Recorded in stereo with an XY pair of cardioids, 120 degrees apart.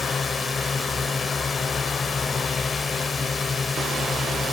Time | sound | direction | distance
0.0 | a drone | 25° left | ?